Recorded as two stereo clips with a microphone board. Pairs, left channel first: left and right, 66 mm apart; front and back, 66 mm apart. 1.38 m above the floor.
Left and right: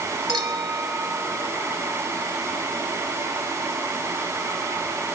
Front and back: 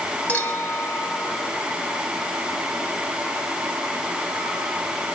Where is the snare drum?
I don't hear a snare drum.